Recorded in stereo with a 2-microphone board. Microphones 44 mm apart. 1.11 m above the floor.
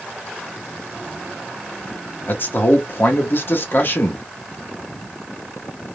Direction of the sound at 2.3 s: 50° left (ahead or behind).